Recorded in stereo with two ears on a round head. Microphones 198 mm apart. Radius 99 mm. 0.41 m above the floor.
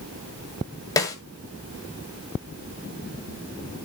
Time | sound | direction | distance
1.0 | a snare drum | 15° left (ahead or behind) | 1.8 m